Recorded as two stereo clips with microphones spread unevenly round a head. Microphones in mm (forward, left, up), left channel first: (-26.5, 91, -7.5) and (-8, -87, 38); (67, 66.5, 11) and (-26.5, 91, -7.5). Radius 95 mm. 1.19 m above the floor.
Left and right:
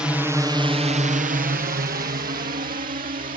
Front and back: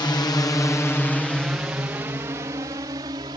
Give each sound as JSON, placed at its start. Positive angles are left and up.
{"t": 0.0, "sound": "a drone", "azimuth_deg": 15}